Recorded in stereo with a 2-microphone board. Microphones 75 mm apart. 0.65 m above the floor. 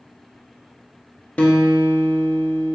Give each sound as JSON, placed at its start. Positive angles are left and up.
{"t": 1.4, "sound": "a guitar", "side_deg": 15, "distance_m": 0.7}